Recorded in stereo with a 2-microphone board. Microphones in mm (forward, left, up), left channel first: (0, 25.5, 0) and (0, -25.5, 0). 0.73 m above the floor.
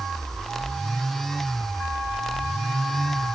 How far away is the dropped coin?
No dropped coin in this recording.